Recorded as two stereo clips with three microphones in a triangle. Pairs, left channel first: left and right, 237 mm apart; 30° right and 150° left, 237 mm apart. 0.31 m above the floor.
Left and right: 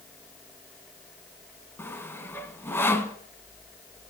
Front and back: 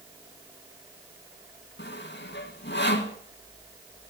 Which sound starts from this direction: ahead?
Sawing, at 1.8 s.